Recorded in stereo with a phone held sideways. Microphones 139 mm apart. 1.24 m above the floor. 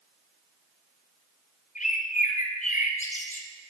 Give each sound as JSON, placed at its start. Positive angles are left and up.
{"t": 1.8, "sound": "a bird", "side_deg": 65, "distance_m": 0.6}